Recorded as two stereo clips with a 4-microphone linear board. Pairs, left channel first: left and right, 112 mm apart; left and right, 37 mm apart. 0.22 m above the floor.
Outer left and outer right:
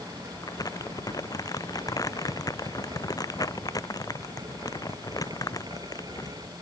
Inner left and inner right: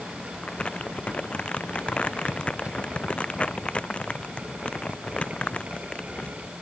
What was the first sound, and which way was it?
Crumpling, 30° left (ahead or behind).